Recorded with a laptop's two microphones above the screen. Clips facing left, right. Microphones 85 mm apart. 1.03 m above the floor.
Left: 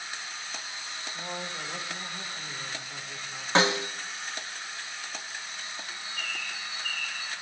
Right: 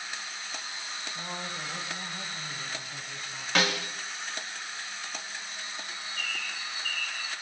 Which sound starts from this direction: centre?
A bird, at 5.9 s.